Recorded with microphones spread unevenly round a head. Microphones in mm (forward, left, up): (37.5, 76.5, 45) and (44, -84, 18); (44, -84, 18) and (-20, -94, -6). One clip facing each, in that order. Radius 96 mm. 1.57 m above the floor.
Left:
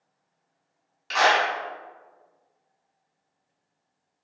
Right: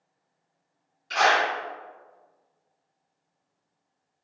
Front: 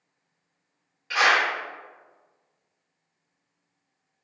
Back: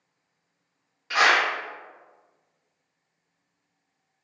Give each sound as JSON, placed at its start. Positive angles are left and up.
{"t": 1.1, "sound": "a clap", "azimuth_deg": 100, "distance_m": 1.6}